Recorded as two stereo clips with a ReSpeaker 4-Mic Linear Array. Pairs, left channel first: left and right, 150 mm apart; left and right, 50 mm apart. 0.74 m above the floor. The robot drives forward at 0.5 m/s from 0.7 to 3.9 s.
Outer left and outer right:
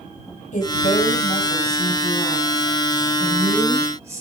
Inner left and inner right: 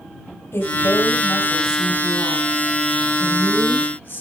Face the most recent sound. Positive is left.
turn(degrees=40)  # may be behind; listen again after turning